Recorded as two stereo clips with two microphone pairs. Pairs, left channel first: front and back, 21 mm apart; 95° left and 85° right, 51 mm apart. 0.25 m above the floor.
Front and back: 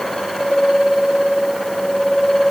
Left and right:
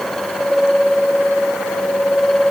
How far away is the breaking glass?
No breaking glass in this recording.